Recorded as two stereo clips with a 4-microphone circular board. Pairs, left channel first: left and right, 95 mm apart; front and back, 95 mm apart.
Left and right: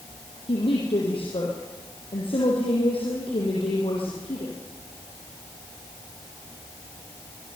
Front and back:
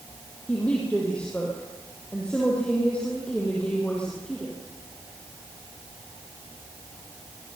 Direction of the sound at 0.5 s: 80° left.